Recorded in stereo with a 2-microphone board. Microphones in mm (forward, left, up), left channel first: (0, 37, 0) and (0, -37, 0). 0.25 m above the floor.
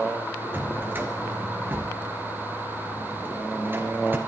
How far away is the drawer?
About 2.5 m.